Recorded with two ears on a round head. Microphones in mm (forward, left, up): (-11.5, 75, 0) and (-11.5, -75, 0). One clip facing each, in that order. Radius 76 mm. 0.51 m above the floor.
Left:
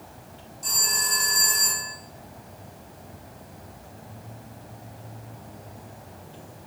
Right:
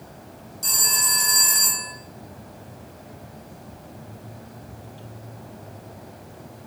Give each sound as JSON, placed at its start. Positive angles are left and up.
{"t": 0.6, "sound": "a phone ringing", "side_deg": -75, "distance_m": 1.7}